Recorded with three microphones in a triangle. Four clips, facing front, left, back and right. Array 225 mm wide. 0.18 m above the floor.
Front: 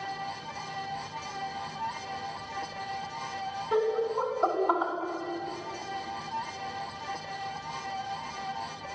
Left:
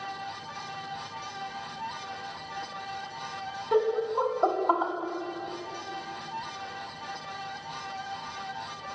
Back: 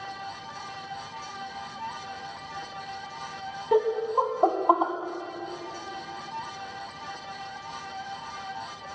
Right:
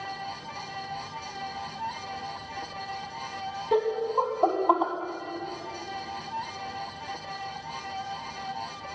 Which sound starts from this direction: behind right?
Laughter, at 3.7 s.